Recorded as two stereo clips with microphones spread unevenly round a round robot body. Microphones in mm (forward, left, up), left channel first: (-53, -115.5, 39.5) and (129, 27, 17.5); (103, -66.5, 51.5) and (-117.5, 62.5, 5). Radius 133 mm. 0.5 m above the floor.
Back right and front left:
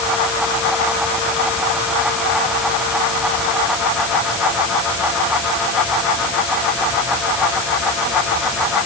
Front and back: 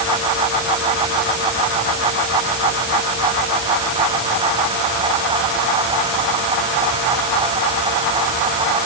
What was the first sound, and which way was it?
Only background noise.